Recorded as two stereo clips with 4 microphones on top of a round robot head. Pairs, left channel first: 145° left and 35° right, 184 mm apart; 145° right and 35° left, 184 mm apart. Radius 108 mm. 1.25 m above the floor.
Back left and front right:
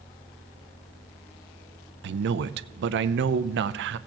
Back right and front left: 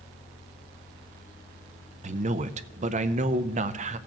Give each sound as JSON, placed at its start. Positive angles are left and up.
{"t": 2.0, "sound": "a man speaking", "azimuth_deg": -15, "distance_m": 0.6}